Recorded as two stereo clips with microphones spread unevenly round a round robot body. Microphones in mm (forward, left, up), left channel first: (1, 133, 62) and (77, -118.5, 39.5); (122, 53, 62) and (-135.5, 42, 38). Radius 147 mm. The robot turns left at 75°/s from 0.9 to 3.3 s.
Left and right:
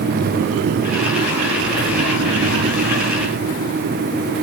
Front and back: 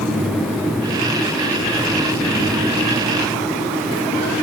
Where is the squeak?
No squeak in this recording.